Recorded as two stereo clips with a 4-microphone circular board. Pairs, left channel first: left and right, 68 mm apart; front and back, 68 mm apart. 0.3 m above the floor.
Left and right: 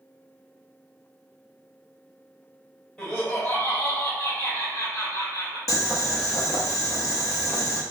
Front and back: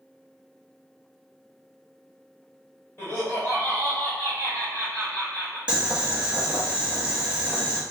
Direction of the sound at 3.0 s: 30° left.